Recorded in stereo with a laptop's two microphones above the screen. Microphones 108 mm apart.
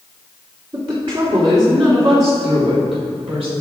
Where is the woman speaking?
50° right (ahead or behind), 1.8 m; by 3.5 s 75° right (ahead or behind), 4 m.